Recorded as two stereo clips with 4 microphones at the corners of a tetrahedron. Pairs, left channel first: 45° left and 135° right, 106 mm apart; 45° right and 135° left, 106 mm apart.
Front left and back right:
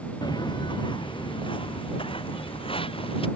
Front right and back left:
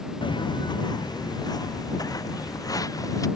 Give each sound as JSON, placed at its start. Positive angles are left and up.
{"t": 0.2, "sound": "footsteps", "azimuth_deg": 0}